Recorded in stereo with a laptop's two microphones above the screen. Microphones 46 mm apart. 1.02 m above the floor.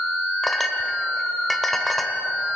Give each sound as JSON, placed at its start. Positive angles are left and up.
{"t": 0.4, "sound": "a clink", "side_deg": 5, "distance_m": 1.9}